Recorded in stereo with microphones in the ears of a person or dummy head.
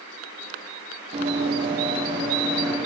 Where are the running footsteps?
40° right (ahead or behind), 3 m; by 2.8 s 20° right (ahead or behind), 3.5 m.